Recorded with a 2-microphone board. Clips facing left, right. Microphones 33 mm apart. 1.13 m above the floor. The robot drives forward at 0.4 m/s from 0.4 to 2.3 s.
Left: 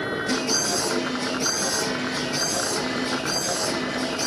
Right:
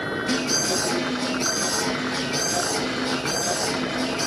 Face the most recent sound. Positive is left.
turn(degrees=-80)